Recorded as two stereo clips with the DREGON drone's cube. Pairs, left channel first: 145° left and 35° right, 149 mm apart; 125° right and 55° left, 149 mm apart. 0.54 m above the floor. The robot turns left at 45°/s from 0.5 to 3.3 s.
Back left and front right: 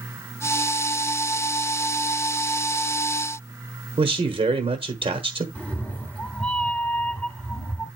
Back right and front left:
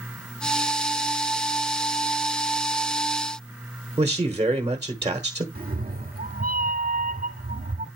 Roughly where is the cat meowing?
Ahead left.